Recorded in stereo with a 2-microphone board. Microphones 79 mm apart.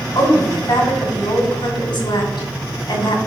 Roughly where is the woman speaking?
Left.